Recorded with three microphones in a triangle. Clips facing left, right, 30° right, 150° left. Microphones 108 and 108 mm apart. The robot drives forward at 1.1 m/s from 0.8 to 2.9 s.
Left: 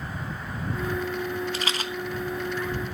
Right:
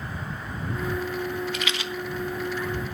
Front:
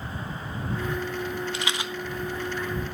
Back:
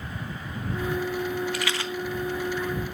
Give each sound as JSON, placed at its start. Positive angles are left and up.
{"t": 1.5, "sound": "a rattle", "azimuth_deg": 35, "distance_m": 1.3}